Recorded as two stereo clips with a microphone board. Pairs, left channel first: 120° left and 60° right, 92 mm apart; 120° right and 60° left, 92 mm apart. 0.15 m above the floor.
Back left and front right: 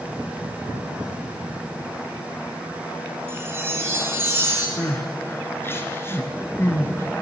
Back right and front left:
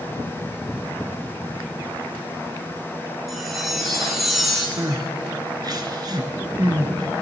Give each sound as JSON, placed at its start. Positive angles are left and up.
{"t": 3.3, "sound": "a chime", "azimuth_deg": -25, "distance_m": 1.4}
{"t": 4.8, "sound": "crying", "azimuth_deg": 65, "distance_m": 1.0}